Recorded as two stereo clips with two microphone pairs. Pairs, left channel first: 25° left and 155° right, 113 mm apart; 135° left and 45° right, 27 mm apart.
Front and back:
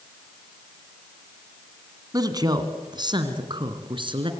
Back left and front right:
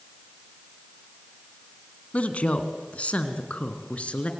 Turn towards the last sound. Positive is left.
turn(degrees=165)